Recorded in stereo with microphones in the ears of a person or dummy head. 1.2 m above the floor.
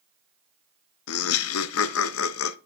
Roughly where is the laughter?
Left.